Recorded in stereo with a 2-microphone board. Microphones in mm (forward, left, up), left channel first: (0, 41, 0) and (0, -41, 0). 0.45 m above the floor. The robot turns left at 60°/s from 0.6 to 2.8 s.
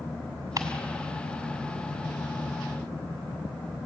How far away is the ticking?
About 2.5 m.